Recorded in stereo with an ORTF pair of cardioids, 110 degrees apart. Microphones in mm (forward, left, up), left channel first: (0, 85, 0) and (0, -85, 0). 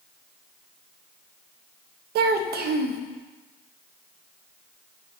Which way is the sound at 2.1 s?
70° right.